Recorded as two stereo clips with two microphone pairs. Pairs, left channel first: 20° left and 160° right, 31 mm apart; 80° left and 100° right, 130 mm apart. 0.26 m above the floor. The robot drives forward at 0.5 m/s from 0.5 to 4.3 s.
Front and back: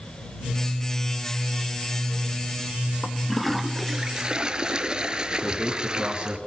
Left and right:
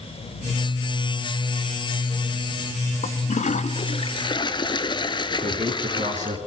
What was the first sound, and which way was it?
A toilet flushing, 85° left.